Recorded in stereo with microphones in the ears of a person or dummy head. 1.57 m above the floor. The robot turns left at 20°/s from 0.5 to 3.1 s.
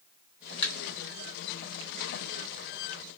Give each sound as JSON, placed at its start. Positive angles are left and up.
{"t": 0.6, "sound": "a thud", "side_deg": 30, "distance_m": 1.8}